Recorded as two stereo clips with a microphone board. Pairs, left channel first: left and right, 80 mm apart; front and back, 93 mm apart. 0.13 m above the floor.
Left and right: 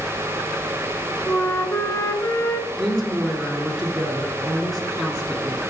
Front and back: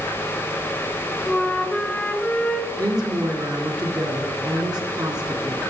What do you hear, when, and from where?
1.3 s a flute: 65° left, 0.6 m
2.8 s a woman speaking: 170° left, 2 m